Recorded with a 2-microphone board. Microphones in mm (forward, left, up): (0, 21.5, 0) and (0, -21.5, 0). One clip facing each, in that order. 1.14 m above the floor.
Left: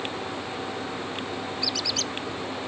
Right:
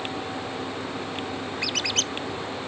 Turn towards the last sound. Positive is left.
turn(degrees=-55)  # may be behind; listen again after turning